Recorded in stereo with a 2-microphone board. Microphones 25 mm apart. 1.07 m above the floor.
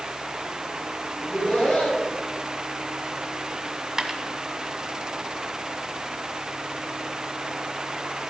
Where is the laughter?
50° left (ahead or behind), 7 m.